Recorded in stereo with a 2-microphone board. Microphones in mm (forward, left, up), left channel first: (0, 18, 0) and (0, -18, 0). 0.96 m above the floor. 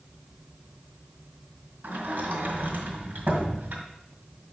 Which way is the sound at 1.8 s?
75° right (ahead or behind).